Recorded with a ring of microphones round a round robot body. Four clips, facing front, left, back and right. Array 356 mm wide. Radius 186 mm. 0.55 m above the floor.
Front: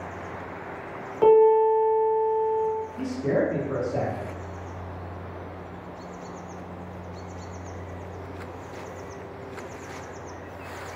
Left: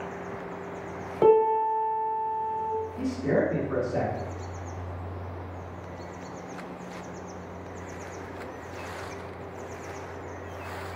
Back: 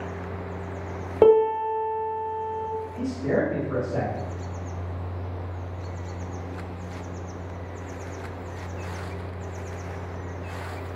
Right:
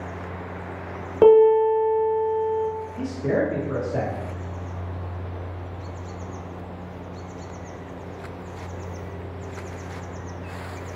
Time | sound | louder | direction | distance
1.2 | a piano | right 7 dB, front 1 dB | 140° right | 1.1 m
3.0 | a man speaking | right 2 dB, back 1 dB | 85° right | 1.4 m